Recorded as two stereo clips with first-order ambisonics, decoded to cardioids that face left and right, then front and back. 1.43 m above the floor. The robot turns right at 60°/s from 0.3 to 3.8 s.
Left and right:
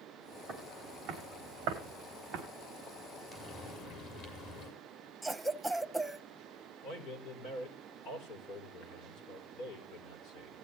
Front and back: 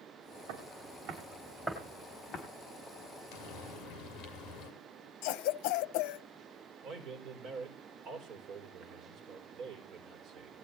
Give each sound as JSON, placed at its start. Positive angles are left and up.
{"t": 0.5, "sound": "footsteps", "azimuth_deg": -150, "distance_m": 6.0}
{"t": 3.3, "sound": "frying", "azimuth_deg": 25, "distance_m": 6.5}
{"t": 5.2, "sound": "a cough", "azimuth_deg": 0, "distance_m": 0.8}
{"t": 6.8, "sound": "a man speaking", "azimuth_deg": 130, "distance_m": 4.5}